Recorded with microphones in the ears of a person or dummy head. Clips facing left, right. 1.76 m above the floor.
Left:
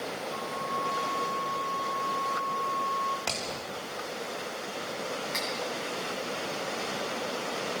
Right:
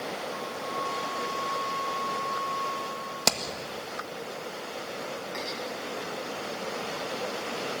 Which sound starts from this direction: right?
Hammering, at 3.3 s.